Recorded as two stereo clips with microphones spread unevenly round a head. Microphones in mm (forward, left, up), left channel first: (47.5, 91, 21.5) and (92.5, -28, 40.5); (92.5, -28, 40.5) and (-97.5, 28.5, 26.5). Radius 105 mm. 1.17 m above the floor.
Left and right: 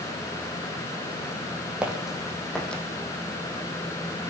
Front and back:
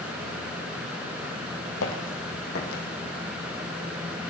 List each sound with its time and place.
1.8 s footsteps: 10° left, 3.5 m; by 2.8 s 25° left, 3 m